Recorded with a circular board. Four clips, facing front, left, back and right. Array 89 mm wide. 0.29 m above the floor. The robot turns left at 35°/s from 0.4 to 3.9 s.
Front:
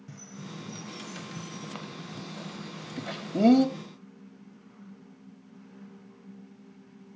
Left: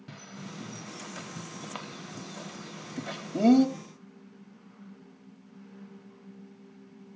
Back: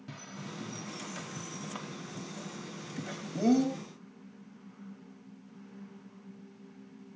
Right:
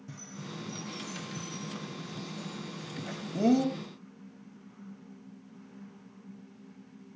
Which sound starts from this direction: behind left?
A bird, at 0.1 s.